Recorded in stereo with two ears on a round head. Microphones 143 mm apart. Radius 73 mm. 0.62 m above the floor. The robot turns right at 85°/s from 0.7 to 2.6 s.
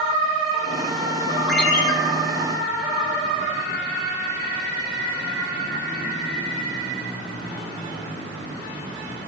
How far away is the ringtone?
About 2 m.